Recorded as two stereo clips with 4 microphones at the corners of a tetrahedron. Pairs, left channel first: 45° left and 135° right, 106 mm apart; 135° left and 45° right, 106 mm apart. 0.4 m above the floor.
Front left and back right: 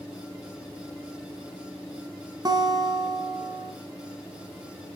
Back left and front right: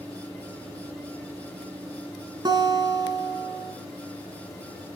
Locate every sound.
2.5 s a guitar: 90° right, 1.3 m